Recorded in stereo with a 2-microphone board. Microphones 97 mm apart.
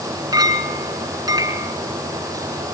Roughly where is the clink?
Right.